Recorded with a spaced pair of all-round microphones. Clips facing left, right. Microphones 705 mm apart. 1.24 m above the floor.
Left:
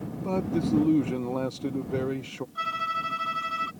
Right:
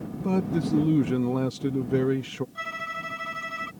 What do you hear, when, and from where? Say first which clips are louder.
0.2 s a man speaking: right 1 dB; 50° right (ahead or behind)
2.5 s a violin: left 1 dB; 60° right (ahead or behind)